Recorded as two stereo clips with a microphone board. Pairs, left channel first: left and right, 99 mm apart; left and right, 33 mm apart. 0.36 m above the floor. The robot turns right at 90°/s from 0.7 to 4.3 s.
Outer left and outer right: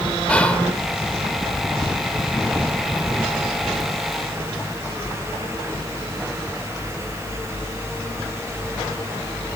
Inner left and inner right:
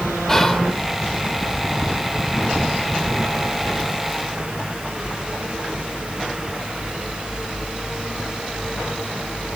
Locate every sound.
0.3 s whispering: 10° left (ahead or behind), 0.8 m